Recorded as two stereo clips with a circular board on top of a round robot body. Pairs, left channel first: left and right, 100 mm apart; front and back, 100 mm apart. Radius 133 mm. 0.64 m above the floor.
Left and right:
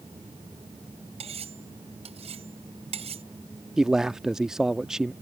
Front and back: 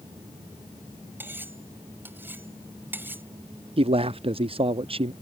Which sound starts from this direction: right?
Cutlery clinking, at 1.2 s.